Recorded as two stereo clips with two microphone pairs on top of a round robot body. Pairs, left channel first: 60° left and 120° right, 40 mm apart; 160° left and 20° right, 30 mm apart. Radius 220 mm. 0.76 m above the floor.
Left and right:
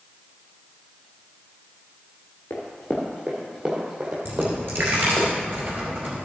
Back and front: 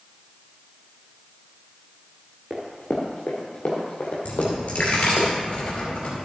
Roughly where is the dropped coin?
Behind right.